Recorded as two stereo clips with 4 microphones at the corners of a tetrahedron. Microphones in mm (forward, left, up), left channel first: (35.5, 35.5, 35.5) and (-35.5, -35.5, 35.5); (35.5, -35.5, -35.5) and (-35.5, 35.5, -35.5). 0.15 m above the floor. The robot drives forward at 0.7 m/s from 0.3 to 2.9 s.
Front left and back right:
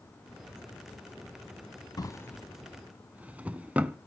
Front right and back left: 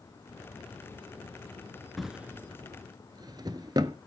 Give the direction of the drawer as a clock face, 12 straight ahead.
11 o'clock.